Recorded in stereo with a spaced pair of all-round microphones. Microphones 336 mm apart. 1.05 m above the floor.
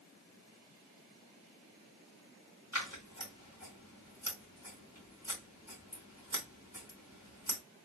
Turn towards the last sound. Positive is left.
turn(degrees=50)  # may be behind; listen again after turning